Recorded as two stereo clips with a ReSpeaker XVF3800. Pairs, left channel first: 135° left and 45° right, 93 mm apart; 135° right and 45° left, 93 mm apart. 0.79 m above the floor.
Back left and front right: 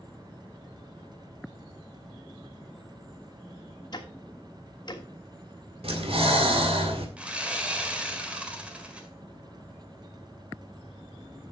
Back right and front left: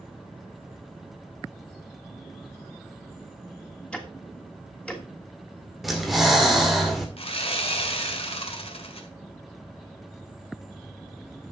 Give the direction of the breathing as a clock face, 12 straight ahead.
1 o'clock.